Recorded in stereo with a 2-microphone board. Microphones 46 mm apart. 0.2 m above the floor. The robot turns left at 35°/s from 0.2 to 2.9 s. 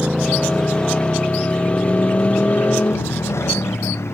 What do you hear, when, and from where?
0.0 s a motorcycle: 10° right (ahead or behind); by 4.1 s 70° left (ahead or behind)